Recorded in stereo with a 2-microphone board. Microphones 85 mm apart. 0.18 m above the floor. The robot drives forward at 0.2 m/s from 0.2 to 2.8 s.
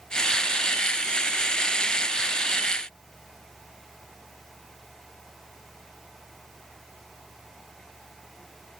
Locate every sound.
Only background noise.